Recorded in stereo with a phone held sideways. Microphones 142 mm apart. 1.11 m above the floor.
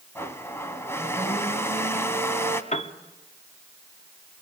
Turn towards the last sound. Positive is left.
turn(degrees=55)  # may be behind; listen again after turning